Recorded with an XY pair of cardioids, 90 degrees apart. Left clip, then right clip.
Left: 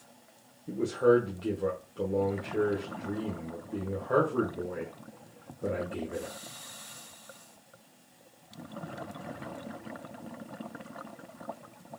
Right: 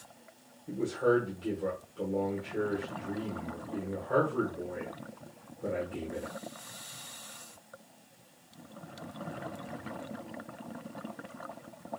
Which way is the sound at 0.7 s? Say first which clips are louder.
Left 4 dB; 40° left.